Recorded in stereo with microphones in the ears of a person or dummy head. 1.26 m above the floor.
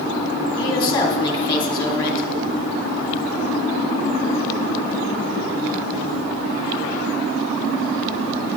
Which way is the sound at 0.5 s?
15° left (ahead or behind).